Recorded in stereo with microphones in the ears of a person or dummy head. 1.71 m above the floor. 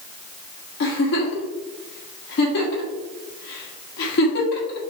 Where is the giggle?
60° left (ahead or behind), 1.2 m.